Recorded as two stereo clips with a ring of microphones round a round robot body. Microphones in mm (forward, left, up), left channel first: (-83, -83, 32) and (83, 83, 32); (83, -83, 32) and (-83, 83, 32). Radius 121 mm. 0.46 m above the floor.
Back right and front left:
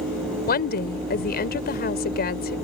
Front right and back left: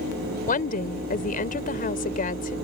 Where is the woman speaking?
95° right.